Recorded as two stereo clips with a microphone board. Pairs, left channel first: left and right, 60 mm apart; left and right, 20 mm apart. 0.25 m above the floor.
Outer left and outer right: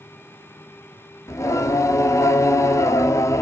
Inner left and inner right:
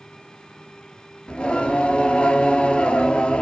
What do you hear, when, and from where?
1.3 s singing: 60° left (ahead or behind), 0.6 m